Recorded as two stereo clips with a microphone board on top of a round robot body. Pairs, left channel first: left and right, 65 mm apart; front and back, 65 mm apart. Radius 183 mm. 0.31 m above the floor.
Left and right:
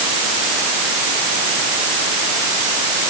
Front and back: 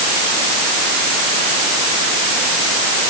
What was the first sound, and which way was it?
Only background noise.